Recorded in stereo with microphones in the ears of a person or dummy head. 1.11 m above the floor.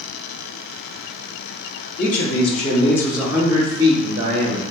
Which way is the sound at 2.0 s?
45° left (ahead or behind).